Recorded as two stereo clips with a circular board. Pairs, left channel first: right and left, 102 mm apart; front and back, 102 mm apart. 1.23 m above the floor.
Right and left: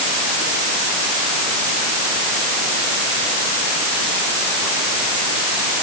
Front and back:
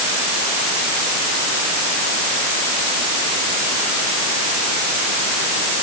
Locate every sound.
Only background noise.